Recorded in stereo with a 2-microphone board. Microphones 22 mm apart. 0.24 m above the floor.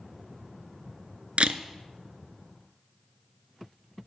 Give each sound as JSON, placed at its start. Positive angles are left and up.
{"t": 1.4, "sound": "a camera shutter", "side_deg": -55, "distance_m": 0.6}